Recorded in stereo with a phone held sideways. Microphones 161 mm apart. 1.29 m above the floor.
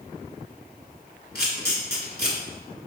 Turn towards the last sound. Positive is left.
turn(degrees=80)